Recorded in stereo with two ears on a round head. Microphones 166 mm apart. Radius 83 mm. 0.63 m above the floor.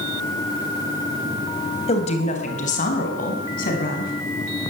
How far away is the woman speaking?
About 4 m.